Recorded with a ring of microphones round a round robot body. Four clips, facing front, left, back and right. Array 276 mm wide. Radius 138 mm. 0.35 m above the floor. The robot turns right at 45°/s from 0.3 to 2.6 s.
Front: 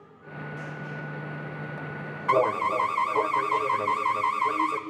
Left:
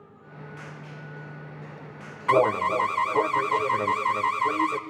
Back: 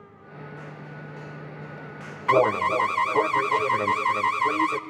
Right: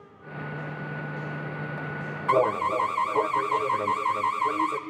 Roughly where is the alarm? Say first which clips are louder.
Left 2 dB, back 3 dB; behind left.